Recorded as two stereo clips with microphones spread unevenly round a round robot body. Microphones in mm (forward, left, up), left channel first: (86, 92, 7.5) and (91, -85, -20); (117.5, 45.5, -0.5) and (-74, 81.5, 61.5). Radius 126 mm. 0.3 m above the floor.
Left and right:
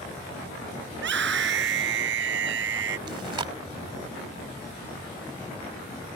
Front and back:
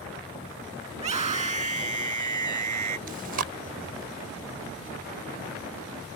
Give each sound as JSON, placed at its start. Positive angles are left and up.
{"t": 0.9, "sound": "a scream", "azimuth_deg": -125}
{"t": 3.1, "sound": "chewing", "azimuth_deg": -140}